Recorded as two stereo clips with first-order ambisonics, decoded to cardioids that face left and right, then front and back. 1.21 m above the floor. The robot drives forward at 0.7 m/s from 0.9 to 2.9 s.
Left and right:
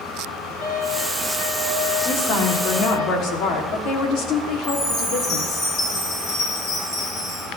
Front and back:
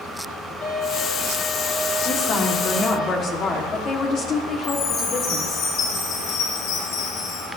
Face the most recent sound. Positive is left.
turn(degrees=35)